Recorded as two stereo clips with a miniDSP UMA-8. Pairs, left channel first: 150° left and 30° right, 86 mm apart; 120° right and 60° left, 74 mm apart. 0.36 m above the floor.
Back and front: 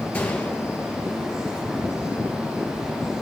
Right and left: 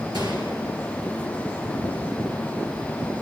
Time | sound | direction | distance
0.1 | a gunshot | 75° left | 2.5 m